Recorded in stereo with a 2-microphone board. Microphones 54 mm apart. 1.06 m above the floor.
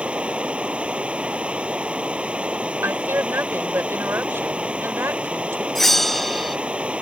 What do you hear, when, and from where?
0.0 s running water: 20° right (ahead or behind)
2.8 s a woman speaking: 50° right (ahead or behind)
5.8 s a bell: 5° left (ahead or behind)